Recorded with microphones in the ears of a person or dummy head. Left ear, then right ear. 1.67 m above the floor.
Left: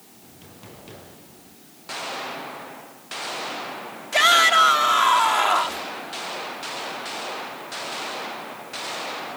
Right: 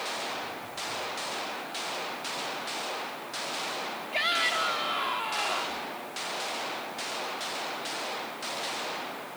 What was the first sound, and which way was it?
A shout, 45° left (ahead or behind).